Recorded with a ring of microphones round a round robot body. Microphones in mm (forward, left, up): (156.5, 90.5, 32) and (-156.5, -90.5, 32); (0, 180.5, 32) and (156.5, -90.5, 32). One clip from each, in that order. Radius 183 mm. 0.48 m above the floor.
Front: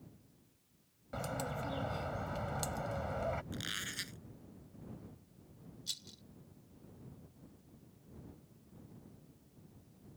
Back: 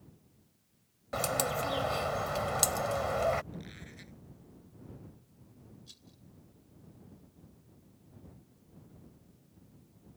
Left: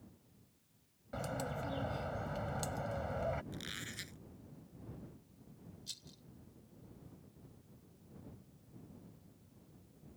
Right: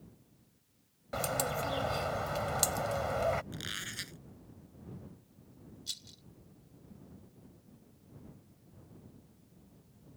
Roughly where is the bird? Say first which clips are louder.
Back 9 dB, right 7 dB; right.